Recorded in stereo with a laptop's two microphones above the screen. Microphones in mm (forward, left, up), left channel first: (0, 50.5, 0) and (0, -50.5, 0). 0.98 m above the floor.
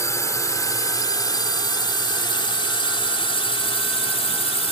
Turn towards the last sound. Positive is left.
turn(degrees=70)  # may be behind; listen again after turning